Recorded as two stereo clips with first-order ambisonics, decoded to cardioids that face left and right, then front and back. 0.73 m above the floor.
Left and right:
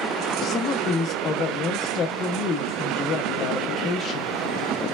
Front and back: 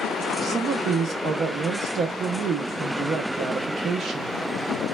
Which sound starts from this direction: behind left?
A woman speaking, at 0.4 s.